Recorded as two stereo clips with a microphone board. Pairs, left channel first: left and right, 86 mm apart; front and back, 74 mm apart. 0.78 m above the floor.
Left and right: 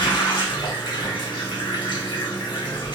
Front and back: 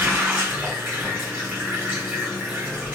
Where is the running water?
115° left, 1.1 m.